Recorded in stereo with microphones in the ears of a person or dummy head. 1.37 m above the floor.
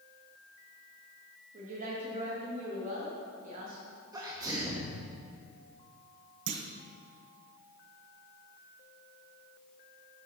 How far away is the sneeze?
About 0.9 m.